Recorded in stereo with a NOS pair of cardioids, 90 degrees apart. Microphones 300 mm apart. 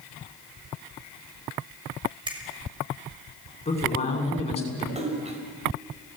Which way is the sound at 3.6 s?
20° left.